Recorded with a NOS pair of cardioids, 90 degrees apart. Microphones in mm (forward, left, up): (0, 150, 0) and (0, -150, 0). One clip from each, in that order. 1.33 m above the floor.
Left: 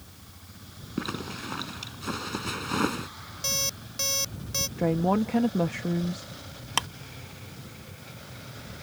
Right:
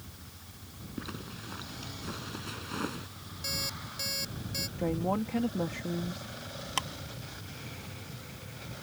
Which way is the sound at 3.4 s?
50° left.